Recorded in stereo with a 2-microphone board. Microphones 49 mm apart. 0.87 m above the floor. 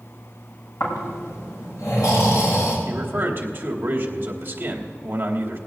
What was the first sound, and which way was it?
Snoring, 85° left.